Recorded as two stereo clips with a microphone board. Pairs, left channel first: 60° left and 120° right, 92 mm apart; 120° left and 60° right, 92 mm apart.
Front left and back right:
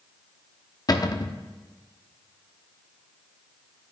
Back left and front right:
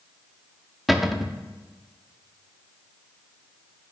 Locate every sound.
0.9 s a cupboard door: 30° left, 0.6 m